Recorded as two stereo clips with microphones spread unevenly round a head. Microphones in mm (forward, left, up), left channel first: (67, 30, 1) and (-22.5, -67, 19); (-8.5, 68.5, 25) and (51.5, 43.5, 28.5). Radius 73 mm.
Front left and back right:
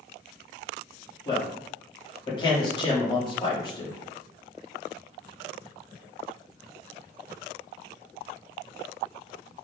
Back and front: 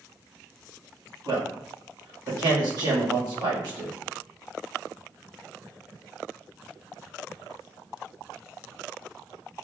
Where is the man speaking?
10° right, 1.5 m.